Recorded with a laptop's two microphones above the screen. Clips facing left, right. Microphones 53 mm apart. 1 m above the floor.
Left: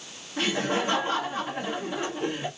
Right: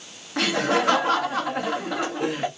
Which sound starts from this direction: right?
Laughter, at 0.4 s.